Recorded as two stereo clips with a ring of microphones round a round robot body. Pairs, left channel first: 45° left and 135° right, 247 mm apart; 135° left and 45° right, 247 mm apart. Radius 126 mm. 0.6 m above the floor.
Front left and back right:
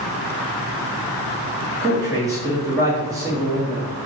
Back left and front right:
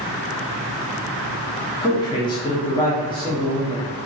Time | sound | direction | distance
1.8 | a man speaking | 170° left | 0.8 m